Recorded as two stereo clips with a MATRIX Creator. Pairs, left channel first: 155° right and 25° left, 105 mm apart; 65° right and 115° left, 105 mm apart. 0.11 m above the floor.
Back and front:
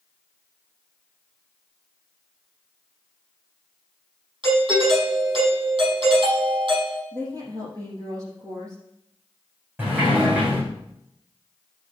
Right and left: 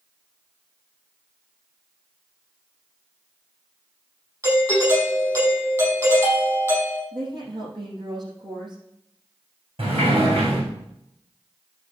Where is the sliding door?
95° left, 6.5 m.